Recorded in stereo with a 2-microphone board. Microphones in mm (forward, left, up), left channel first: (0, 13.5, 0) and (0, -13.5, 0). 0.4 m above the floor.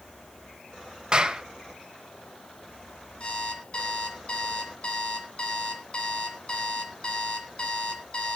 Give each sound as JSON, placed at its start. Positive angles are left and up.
{"t": 1.1, "sound": "a clap", "side_deg": -30, "distance_m": 1.9}
{"t": 3.2, "sound": "an alarm clock", "side_deg": 40, "distance_m": 2.5}